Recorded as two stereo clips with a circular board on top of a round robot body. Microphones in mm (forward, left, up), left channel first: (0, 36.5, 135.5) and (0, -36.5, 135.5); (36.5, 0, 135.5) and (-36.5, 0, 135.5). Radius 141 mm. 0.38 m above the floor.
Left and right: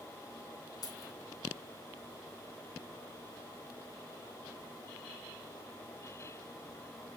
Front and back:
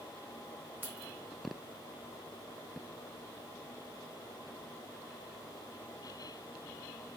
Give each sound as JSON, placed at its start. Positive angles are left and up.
{"t": 0.8, "sound": "keys jangling", "azimuth_deg": 115, "distance_m": 3.5}